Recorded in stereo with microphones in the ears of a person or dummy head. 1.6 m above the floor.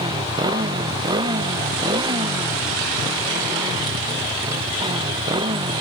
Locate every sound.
0.0 s a motorcycle: 20° right (ahead or behind)